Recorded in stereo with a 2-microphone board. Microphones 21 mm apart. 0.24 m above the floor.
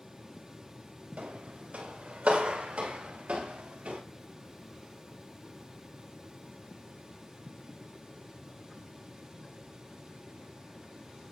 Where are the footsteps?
80° right, 6 m; by 4.0 s 70° right (ahead or behind), 7 m.